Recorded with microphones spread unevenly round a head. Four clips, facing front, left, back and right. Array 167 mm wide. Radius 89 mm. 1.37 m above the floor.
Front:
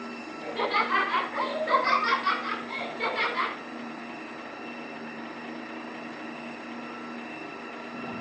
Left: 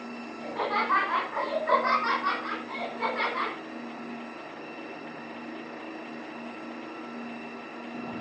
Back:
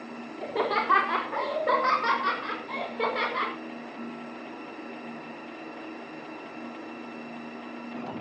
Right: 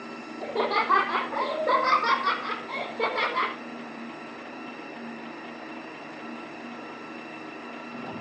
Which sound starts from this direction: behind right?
Laughter, at 0.4 s.